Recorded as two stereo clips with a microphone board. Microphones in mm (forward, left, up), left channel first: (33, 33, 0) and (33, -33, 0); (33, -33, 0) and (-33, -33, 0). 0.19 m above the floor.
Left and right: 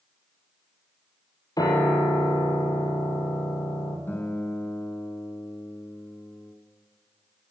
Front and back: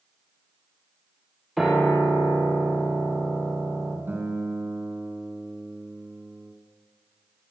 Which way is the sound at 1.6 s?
95° left.